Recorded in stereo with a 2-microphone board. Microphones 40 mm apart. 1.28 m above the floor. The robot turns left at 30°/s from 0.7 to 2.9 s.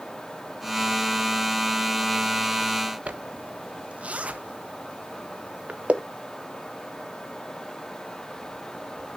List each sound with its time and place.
3.1 s a zipper: 35° right (ahead or behind), 0.7 m